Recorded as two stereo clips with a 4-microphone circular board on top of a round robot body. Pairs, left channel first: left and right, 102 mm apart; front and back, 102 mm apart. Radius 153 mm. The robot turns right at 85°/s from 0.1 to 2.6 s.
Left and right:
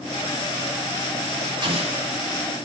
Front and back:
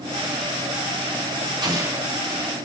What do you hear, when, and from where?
1.6 s an explosion: 135° right, 3 m; by 2.1 s 95° right, 3 m